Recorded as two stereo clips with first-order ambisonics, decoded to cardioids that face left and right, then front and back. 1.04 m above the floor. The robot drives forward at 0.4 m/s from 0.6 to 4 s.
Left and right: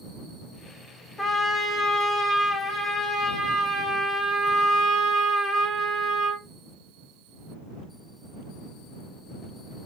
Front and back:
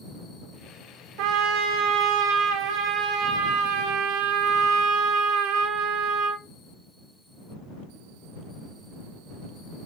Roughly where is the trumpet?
Behind.